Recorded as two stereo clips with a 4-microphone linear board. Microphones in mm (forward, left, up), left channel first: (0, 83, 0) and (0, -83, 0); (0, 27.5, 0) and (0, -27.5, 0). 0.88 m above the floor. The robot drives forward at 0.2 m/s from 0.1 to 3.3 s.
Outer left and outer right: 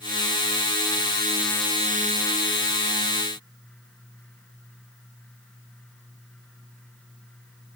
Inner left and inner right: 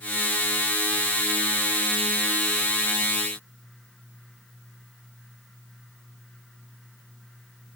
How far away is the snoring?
No snoring in this recording.